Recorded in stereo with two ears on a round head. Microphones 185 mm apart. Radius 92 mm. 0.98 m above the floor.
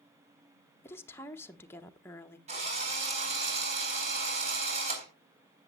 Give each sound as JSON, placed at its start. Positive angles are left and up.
{"t": 0.8, "sound": "a woman speaking", "side_deg": 10, "distance_m": 0.9}
{"t": 2.5, "sound": "a drill", "side_deg": -30, "distance_m": 4.0}